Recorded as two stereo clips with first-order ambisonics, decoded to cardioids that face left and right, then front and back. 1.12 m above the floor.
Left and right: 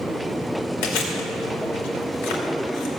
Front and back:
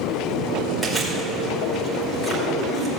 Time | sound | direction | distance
0.8 | chewing | 85° left | 2.5 m